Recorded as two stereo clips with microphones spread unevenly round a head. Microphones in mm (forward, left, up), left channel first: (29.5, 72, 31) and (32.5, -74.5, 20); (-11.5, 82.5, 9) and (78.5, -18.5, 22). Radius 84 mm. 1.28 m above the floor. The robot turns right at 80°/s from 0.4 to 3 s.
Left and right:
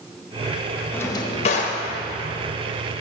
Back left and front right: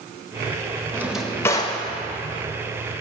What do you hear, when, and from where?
0.9 s a drawer: 15° left, 0.8 m; by 1.8 s 90° left, 0.8 m